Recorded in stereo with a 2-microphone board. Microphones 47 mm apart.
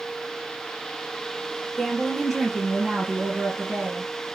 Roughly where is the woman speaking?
Centre.